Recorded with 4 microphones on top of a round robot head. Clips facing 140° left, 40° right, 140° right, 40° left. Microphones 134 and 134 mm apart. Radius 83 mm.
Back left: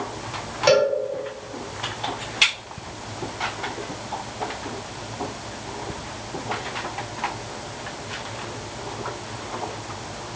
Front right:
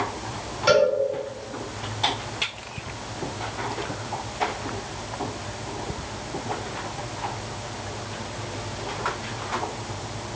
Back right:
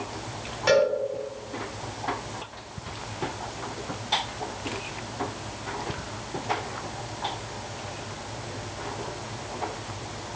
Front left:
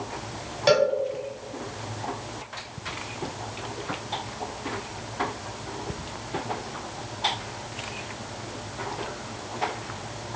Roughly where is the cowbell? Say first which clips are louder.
Back left 1 dB, even; left.